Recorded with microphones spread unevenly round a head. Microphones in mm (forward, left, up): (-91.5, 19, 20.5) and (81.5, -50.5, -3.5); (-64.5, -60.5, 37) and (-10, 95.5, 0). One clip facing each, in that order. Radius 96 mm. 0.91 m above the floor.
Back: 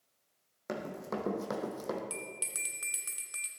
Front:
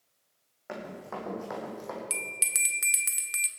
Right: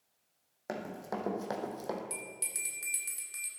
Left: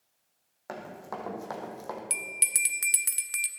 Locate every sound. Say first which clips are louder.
0.7 s running footsteps: back 1 dB, right 1 dB; 165° right, 2.5 m
2.1 s a bell: front 1 dB, left 1 dB; 45° left, 0.8 m